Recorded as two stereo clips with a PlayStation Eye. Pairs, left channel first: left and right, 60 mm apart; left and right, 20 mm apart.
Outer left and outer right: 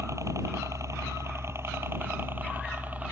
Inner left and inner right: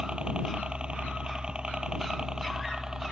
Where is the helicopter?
60° right (ahead or behind); by 3.1 s 25° right (ahead or behind).